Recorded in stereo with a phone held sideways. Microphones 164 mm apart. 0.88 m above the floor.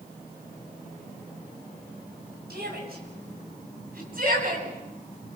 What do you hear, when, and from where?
2.5 s a shout: 75° right (ahead or behind), 7.5 m; by 4.7 s 60° right (ahead or behind), 8.5 m